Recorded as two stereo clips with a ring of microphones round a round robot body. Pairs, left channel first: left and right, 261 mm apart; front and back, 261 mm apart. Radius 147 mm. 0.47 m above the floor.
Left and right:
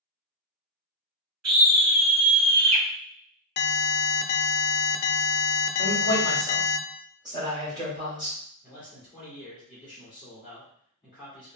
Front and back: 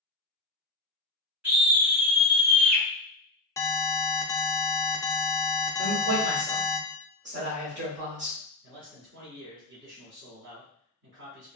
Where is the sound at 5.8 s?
160° right, 1.5 m.